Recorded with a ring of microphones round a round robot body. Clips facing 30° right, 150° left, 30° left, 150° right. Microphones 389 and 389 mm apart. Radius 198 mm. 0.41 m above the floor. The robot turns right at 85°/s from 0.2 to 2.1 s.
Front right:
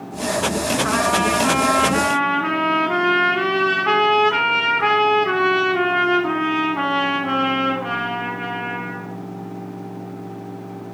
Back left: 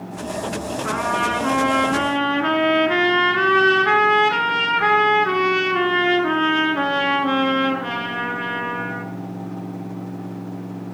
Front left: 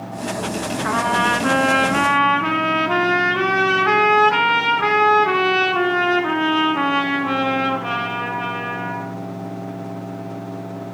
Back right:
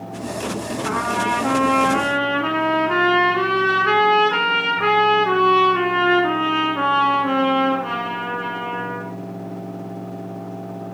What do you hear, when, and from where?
0.8 s a trumpet: 15° right, 1.3 m; by 9.1 s 90° left, 1.3 m